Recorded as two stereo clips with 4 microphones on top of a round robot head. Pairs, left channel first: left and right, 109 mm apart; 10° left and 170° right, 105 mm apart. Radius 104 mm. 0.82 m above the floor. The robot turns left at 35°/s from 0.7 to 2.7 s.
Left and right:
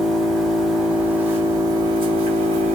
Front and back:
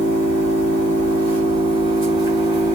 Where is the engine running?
Straight ahead, 1.3 m; by 2.8 s 70° right, 1.3 m.